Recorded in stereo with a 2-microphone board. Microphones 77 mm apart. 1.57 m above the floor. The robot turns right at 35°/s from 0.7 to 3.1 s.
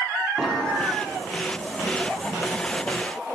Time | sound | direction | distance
0.4 | an explosion | 5° right (ahead or behind) | 2 m